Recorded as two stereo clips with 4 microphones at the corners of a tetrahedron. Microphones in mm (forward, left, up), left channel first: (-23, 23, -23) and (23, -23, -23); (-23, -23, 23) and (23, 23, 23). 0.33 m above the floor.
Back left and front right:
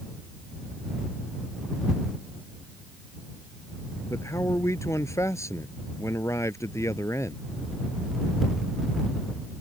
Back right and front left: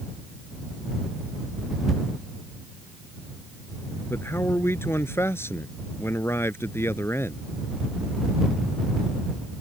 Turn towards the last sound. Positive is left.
turn(degrees=175)